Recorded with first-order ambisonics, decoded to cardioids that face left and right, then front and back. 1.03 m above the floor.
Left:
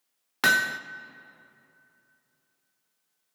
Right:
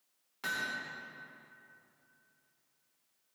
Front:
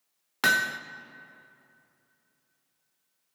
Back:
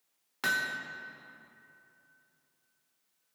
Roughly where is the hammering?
Ahead left.